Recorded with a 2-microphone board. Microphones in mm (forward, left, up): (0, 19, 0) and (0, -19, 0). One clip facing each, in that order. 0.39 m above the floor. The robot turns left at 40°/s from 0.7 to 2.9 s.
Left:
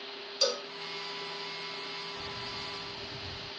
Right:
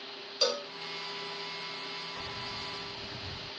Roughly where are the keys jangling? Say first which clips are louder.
Even; right.